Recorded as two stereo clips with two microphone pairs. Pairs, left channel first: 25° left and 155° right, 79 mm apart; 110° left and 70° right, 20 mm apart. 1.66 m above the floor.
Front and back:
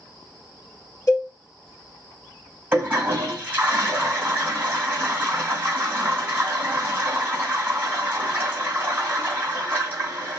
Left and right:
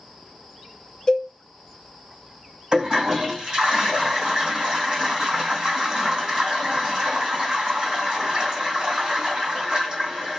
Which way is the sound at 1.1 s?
65° left.